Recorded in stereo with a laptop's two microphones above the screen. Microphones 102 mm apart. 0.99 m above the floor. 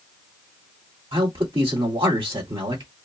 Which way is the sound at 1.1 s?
55° right (ahead or behind).